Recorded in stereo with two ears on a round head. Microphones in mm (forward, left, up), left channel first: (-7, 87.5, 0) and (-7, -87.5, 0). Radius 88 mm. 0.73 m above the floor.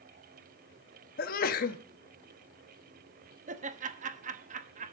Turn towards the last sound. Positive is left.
turn(degrees=-40)  # may be behind; listen again after turning